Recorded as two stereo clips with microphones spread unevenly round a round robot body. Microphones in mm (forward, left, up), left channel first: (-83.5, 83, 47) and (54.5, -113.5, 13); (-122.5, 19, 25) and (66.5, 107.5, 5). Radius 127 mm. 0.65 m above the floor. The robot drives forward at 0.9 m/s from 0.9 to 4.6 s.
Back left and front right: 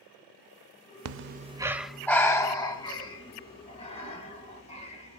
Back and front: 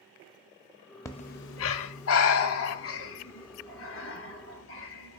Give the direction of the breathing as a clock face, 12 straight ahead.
3 o'clock.